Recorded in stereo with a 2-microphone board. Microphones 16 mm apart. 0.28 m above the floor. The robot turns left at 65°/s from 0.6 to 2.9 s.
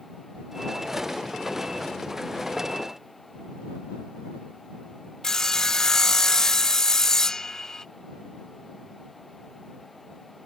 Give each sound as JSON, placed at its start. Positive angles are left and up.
{"t": 5.2, "sound": "sawing", "side_deg": 35}